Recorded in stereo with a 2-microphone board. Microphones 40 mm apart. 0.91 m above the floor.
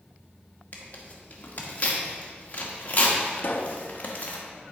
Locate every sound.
0.7 s tearing paper: 40° left (ahead or behind), 1.2 m
3.4 s a pop: 50° left (ahead or behind), 0.6 m